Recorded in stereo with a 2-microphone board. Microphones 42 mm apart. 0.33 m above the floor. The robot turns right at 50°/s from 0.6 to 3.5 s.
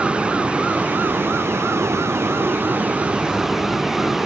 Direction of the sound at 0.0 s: 150° right.